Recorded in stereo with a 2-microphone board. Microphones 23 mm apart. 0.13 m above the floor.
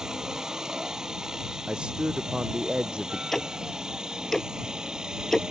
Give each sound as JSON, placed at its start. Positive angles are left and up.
{"t": 0.0, "sound": "a helicopter", "side_deg": -30}
{"t": 1.7, "sound": "a man speaking", "side_deg": -50}
{"t": 3.3, "sound": "ticking", "side_deg": 15}